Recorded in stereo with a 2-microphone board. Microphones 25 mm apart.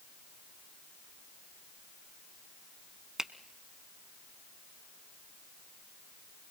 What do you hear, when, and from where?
3.2 s a finger snap: 25° right (ahead or behind), 0.8 m